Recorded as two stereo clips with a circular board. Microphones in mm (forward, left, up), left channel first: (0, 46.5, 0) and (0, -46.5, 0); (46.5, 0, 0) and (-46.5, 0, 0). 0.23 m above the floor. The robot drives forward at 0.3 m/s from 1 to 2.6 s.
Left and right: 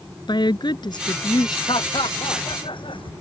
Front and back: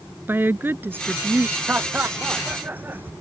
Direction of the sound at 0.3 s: 115° left.